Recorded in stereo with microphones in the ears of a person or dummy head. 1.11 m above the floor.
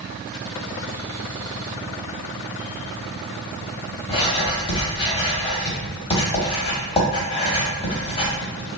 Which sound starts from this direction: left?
Writing, at 4.1 s.